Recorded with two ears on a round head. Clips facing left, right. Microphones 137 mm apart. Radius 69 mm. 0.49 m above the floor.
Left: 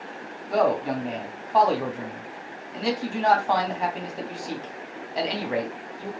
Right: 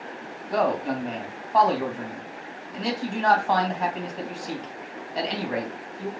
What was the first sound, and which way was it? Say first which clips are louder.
A man speaking: left 2 dB; 5° left (ahead or behind).